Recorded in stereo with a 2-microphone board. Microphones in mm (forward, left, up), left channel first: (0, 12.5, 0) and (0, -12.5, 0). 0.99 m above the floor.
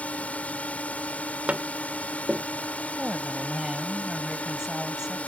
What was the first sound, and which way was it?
A drone, 70° left (ahead or behind).